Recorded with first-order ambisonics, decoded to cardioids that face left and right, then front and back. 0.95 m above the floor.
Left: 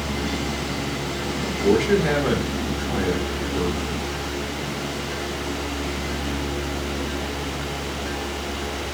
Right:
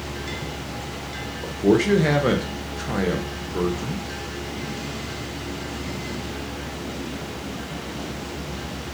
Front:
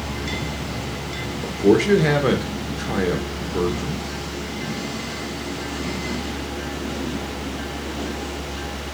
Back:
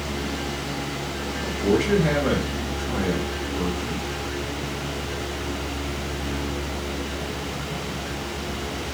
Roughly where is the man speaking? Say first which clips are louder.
Right 1 dB, front 6 dB; ahead right.